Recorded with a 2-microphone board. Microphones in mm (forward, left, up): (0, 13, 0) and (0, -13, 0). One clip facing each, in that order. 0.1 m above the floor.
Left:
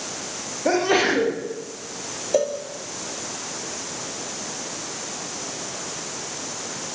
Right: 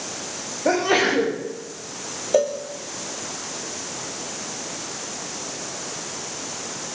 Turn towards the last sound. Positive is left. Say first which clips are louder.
# right 2 dB
turn(degrees=-5)  # may be behind; listen again after turning